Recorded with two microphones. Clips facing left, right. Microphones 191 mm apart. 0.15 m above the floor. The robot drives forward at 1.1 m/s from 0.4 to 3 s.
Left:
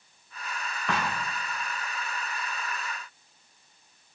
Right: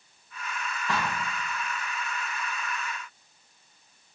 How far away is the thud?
About 2.5 m.